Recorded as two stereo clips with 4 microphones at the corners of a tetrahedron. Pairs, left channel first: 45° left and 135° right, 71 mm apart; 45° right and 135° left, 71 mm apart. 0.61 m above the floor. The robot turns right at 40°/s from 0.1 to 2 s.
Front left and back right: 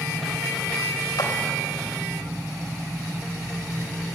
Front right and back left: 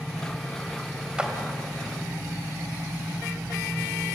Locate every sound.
1.2 s a clap: 55° left, 3 m; by 1.3 s 65° left, 3 m